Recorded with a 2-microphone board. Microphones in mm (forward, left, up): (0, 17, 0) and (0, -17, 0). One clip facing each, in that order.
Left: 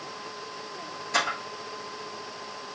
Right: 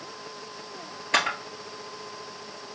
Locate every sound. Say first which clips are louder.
1.1 s a camera shutter: right 2 dB; 55° right (ahead or behind), 1.6 m